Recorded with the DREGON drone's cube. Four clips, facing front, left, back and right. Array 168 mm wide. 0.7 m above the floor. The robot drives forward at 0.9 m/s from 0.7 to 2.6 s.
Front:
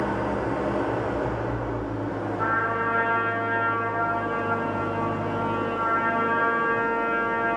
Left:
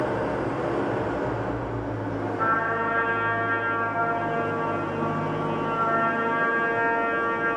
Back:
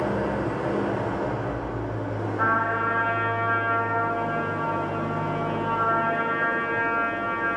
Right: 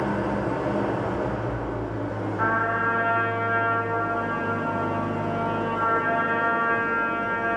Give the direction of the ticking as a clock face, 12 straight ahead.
No ticking in this recording.